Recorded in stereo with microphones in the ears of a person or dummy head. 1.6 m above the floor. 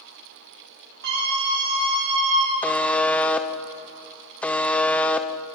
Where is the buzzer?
Centre (ahead or behind), 0.8 m.